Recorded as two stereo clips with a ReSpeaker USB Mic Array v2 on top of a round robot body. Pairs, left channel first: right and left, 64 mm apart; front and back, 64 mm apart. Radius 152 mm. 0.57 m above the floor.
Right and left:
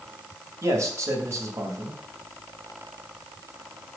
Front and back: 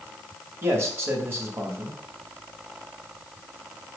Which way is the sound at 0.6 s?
130° left.